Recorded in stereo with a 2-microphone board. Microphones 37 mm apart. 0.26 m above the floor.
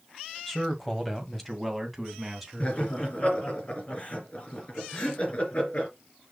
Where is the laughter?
40° left (ahead or behind), 3 m.